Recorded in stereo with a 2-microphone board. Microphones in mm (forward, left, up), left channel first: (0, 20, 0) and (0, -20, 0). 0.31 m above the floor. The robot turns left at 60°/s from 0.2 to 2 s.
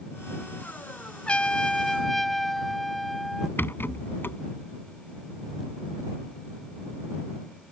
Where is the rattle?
65° left (ahead or behind).